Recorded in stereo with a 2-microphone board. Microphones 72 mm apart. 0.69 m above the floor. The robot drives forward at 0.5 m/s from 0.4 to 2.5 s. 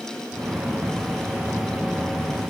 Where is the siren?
I don't hear a siren.